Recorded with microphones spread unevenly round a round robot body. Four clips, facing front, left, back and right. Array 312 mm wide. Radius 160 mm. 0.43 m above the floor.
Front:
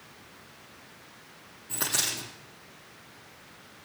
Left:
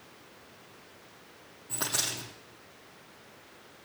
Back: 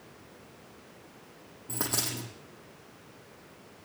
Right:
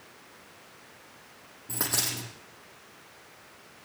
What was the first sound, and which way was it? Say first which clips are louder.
A dropped coin: right 2 dB, even; 145° right.